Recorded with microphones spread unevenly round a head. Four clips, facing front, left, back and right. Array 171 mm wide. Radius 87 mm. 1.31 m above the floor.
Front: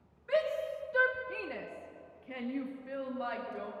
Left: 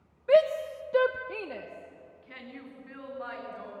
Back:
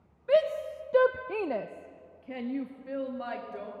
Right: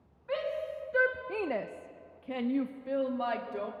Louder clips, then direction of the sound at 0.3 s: Left 11 dB, back 6 dB; 115° left.